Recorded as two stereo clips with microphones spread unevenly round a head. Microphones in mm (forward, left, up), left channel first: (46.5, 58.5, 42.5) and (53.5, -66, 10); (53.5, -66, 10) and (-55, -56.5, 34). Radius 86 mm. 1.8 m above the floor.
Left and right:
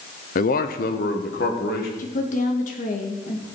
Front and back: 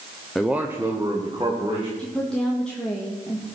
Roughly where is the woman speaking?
Left.